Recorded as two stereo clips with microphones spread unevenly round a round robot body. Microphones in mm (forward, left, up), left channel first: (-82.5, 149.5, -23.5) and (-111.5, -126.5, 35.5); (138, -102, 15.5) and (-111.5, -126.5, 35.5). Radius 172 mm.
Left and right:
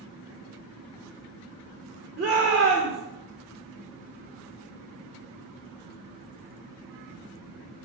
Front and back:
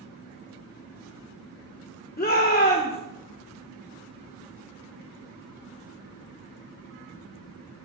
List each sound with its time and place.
2.2 s a shout: 35° right, 1.3 m